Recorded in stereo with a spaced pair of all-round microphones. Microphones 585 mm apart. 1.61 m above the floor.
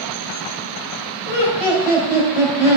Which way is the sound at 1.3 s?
75° left (ahead or behind).